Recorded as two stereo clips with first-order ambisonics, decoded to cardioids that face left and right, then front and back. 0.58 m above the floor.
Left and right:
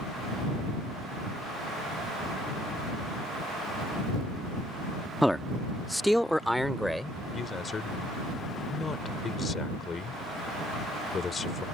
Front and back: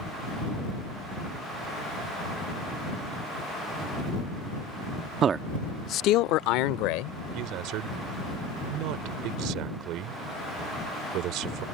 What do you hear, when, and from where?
5.2 s a man speaking: straight behind; by 7.2 s straight ahead
7.3 s a man speaking: 160° left